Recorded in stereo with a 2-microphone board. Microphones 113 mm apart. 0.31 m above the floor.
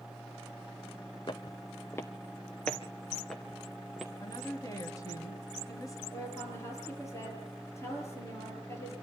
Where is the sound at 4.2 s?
30° left (ahead or behind), 2.5 m.